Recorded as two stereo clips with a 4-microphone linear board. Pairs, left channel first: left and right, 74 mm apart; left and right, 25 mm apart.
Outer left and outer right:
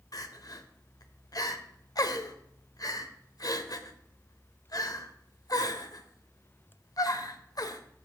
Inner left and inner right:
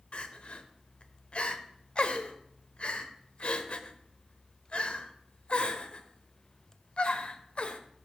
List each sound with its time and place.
0.1 s crying: 55° left (ahead or behind), 0.8 m